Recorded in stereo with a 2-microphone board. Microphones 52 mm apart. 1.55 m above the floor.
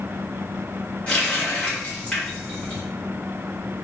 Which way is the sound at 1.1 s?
20° left (ahead or behind).